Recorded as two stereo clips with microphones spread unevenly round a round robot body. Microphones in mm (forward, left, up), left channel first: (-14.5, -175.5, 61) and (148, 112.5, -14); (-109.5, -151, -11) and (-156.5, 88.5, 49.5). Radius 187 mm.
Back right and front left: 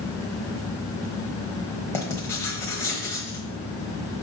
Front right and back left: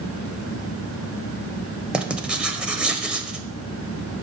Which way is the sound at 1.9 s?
175° left.